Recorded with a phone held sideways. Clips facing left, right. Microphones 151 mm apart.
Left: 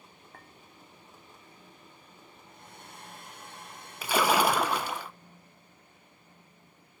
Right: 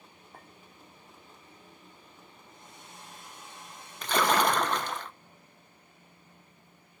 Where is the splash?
10° left (ahead or behind), 0.6 m.